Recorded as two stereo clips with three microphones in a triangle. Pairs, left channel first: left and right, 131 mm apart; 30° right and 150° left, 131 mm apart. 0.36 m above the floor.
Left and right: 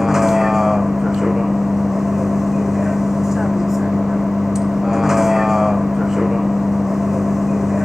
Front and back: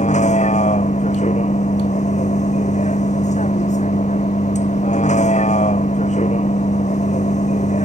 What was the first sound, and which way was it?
A vehicle, 5° right.